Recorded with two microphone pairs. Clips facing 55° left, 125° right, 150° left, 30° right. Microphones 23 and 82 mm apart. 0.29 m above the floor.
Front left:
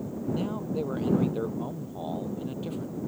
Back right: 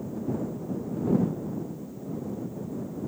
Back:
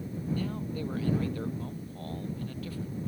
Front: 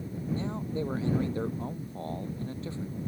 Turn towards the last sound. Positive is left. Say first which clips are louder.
# front left 2 dB, front 2 dB
turn(degrees=35)